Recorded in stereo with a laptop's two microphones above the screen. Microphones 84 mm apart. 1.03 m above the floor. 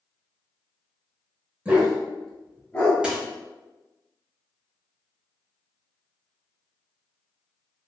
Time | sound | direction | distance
1.6 | a dog barking | 15° right (ahead or behind) | 0.9 m
3.0 | a dropped coin | 10° right (ahead or behind) | 0.9 m